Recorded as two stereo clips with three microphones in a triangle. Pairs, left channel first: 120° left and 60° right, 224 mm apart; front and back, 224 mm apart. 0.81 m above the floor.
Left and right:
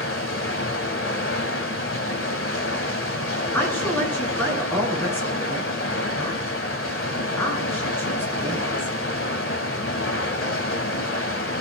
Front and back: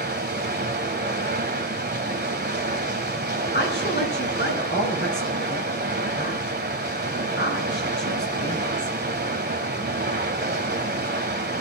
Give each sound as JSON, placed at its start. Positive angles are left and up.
{"t": 0.0, "sound": "running water", "azimuth_deg": 135, "distance_m": 1.4}
{"t": 3.5, "sound": "a woman speaking", "azimuth_deg": 40, "distance_m": 8.5}